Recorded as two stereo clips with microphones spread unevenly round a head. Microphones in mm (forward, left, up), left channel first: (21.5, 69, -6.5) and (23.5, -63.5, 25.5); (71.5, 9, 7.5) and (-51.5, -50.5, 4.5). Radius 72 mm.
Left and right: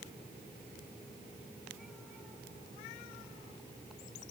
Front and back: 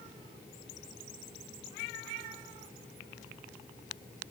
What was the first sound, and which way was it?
Only background noise.